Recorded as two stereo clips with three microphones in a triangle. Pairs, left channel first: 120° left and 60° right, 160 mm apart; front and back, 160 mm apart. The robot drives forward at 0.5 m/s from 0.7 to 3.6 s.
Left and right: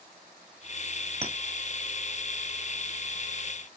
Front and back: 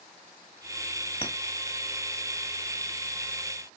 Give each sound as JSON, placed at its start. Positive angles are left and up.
{"t": 1.2, "sound": "a clink", "azimuth_deg": -30, "distance_m": 1.0}